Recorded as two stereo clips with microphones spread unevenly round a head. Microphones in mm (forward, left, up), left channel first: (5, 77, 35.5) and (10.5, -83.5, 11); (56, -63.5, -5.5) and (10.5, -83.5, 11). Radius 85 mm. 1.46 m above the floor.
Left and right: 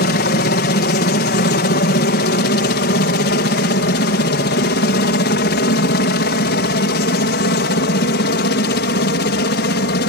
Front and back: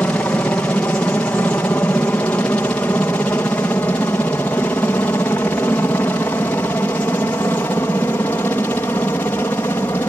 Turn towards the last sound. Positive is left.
turn(degrees=80)